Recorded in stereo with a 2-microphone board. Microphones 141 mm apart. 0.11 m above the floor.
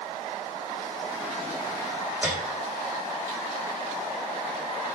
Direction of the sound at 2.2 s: 10° right (ahead or behind).